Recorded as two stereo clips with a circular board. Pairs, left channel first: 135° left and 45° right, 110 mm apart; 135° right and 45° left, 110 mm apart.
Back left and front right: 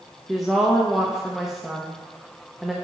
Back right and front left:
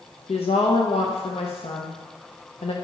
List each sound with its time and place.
0.3 s a woman speaking: 130° right, 0.8 m